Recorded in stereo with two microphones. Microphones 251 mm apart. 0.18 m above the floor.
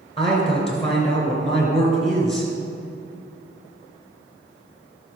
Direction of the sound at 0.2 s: 20° left (ahead or behind).